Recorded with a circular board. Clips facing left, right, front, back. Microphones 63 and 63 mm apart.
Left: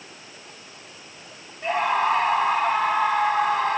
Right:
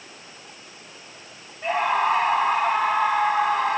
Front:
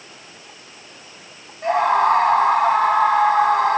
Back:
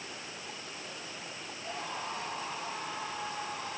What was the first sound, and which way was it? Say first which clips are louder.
A scream: even, front 24 dB; 5° right.